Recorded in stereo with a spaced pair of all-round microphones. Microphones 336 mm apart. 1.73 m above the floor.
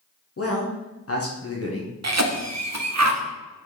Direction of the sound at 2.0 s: 50° right (ahead or behind).